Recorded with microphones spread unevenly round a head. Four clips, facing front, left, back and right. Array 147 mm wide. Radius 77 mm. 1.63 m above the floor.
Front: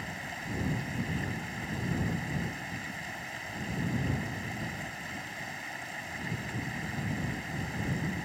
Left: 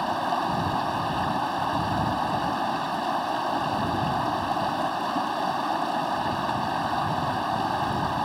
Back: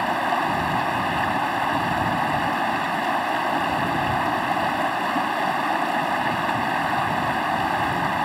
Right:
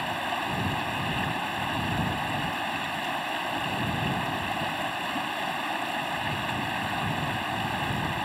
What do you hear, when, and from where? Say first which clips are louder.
0.0 s running water: left 5 dB, back 19 dB; 160° left